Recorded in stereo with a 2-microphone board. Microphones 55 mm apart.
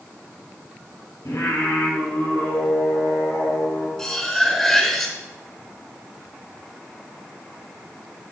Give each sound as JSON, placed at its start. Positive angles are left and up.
{"t": 1.2, "sound": "singing", "side_deg": 80, "distance_m": 3.5}
{"t": 4.0, "sound": "cutlery clinking", "side_deg": 10, "distance_m": 2.5}